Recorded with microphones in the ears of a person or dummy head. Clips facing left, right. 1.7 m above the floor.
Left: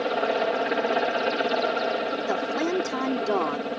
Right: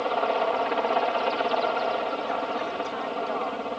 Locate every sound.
0.0 s a helicopter: 20° left (ahead or behind)
2.3 s a woman speaking: 65° left (ahead or behind)